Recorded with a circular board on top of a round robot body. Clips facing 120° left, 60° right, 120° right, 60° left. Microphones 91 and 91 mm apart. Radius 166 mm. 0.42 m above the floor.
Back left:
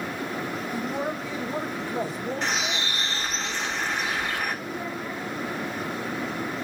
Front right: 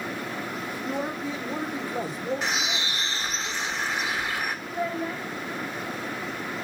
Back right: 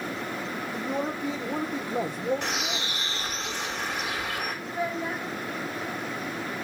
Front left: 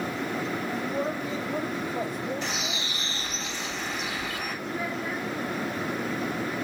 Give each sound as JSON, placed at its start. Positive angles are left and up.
{"t": 0.7, "sound": "a man speaking", "azimuth_deg": -135, "distance_m": 2.0}
{"t": 2.4, "sound": "a bird", "azimuth_deg": -145, "distance_m": 2.5}
{"t": 4.7, "sound": "a child speaking", "azimuth_deg": -55, "distance_m": 1.8}